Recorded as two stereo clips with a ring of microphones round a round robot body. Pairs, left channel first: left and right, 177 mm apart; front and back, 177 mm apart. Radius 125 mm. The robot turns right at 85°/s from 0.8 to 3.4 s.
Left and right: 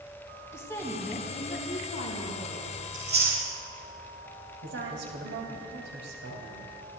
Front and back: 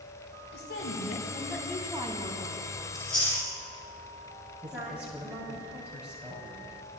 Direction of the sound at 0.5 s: 15° left.